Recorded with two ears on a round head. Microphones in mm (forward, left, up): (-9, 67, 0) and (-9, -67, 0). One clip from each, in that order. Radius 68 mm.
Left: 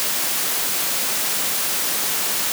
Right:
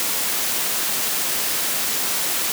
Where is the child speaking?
No child speaking in this recording.